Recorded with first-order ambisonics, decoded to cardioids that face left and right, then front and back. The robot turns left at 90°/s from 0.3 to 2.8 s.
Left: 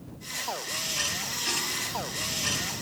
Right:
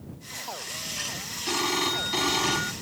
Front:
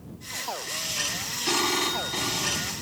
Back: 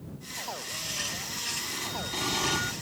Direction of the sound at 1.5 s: 20° right.